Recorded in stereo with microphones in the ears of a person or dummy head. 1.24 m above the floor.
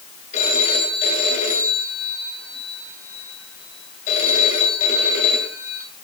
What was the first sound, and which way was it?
A phone ringing, 35° left (ahead or behind).